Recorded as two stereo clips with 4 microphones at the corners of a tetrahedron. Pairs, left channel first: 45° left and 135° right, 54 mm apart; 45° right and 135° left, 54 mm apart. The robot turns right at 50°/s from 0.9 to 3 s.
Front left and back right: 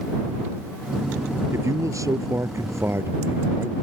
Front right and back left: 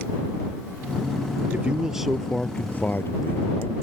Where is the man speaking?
165° right; by 3.7 s 90° right.